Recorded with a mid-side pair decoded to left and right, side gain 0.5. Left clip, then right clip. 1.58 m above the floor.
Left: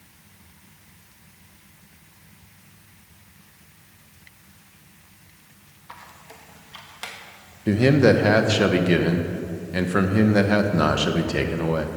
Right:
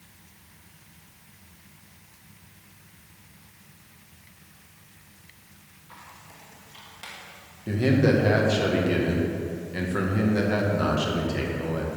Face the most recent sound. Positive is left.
turn(degrees=50)